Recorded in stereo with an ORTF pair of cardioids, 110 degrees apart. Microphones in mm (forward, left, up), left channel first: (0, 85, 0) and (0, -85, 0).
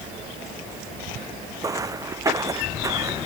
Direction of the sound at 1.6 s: 20° right.